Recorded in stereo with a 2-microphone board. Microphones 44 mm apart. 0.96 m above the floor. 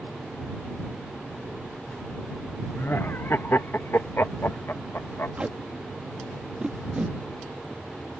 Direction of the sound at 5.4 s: 25° right (ahead or behind).